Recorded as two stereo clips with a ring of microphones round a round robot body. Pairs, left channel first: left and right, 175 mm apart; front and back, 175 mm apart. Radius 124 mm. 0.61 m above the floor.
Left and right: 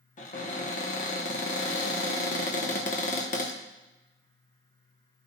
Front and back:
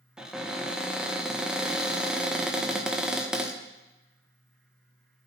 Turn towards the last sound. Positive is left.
turn(degrees=95)